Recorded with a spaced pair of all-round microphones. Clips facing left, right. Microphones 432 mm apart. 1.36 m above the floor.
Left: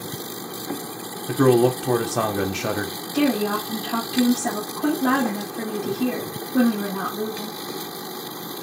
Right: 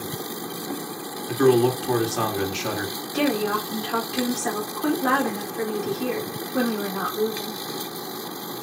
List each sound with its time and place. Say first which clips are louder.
1.3 s a man speaking: left 1 dB; 65° left (ahead or behind), 0.7 m
3.1 s a woman speaking: left 3 dB; 50° left (ahead or behind), 1.6 m